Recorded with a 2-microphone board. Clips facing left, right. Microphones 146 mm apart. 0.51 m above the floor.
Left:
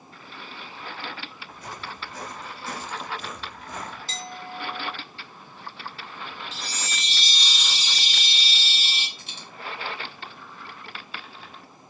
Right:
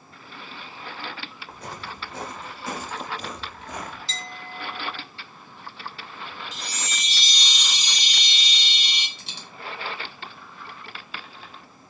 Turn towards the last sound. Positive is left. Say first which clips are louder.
# even
turn(degrees=-80)